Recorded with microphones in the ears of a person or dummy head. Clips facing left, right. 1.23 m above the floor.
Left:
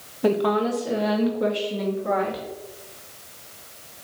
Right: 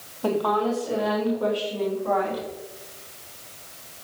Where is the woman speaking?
20° left (ahead or behind), 1.2 m; by 2.4 s 25° left (ahead or behind), 2.5 m.